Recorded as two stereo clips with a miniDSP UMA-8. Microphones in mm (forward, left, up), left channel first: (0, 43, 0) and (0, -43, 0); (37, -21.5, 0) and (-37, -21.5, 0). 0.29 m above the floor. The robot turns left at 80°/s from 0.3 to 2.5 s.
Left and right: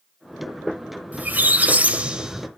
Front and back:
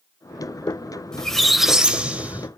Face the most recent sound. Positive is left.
turn(degrees=-175)